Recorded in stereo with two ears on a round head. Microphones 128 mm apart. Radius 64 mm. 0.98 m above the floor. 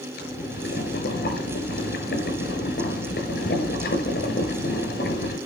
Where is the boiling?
80° left, 7.5 m.